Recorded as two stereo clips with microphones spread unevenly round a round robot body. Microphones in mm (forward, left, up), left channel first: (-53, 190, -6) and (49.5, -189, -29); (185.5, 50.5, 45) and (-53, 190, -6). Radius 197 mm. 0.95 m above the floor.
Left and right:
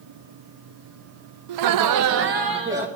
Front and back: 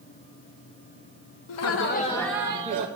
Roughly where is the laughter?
Ahead right.